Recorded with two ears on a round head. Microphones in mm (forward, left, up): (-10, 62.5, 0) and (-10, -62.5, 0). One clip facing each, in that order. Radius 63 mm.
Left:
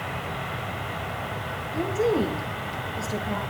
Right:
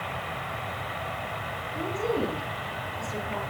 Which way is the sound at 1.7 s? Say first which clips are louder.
Left 5 dB; 50° left (ahead or behind).